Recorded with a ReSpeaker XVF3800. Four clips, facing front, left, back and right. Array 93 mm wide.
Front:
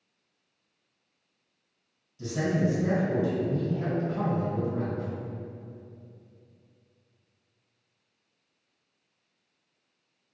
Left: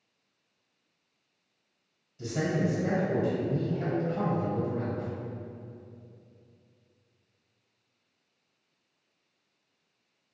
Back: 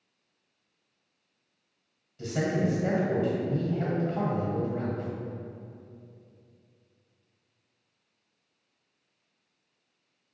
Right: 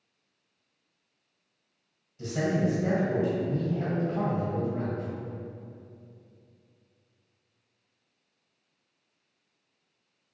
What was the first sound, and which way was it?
A man speaking, straight behind.